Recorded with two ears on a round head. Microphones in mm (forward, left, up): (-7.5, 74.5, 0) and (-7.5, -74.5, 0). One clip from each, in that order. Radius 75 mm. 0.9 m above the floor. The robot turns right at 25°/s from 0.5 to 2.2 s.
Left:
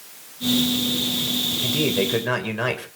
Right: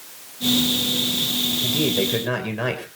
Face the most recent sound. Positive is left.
turn(degrees=20)  # may be behind; listen again after turning